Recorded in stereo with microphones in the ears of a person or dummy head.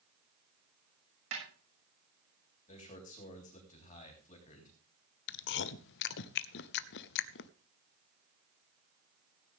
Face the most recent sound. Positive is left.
turn(degrees=65)  # may be behind; listen again after turning